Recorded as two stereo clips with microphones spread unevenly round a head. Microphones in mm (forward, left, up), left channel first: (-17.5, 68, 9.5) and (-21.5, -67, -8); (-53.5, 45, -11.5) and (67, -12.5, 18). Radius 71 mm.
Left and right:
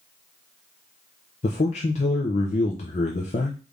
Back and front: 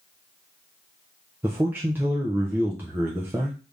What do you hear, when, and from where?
1.4 s a man speaking: 60° left, 0.6 m